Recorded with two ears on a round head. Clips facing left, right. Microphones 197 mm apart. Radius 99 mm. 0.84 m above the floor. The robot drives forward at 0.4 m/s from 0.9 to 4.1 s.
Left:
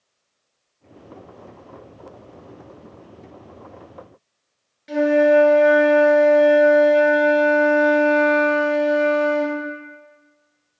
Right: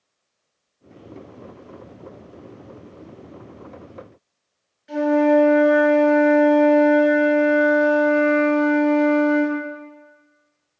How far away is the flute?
About 1.1 m.